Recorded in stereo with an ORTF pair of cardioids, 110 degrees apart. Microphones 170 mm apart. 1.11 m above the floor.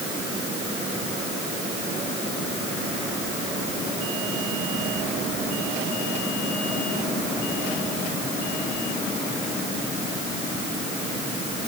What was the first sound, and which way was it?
Only background noise.